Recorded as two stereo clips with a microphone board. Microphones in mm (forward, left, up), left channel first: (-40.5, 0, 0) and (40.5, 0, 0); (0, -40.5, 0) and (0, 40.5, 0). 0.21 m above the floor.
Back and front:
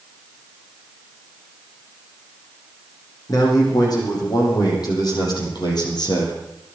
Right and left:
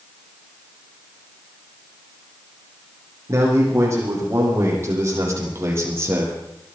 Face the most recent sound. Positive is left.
turn(degrees=155)